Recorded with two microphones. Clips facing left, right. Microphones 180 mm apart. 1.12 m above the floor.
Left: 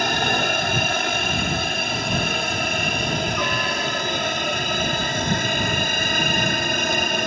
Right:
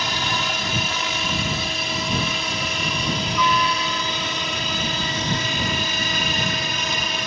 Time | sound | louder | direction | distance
0.0 | a helicopter | left 5 dB | 55° left (ahead or behind) | ?